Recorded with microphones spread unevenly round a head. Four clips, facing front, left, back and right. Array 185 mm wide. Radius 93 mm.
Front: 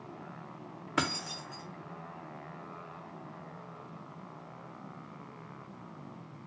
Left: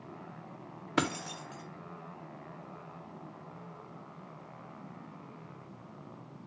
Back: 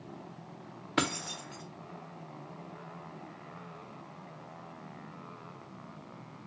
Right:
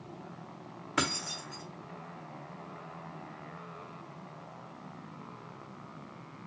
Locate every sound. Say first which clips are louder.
1.0 s keys jangling: left 2 dB, back 1 dB; 120° left, 0.6 m